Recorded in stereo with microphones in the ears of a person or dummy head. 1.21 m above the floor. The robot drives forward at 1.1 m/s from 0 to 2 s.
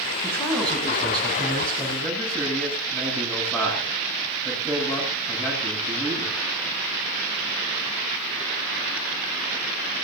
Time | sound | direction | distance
0.2 | a man speaking | 5° left (ahead or behind) | 10 m